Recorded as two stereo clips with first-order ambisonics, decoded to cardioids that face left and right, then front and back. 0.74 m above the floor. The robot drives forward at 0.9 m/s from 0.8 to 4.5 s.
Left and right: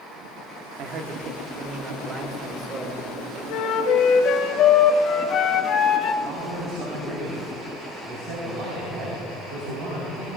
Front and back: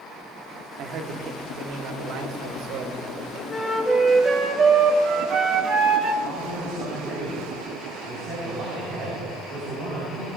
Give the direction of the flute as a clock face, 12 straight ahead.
10 o'clock.